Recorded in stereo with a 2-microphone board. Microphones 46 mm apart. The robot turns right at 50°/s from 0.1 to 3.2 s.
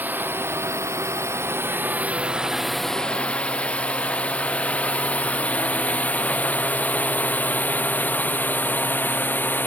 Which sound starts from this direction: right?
A drone, at 0.0 s.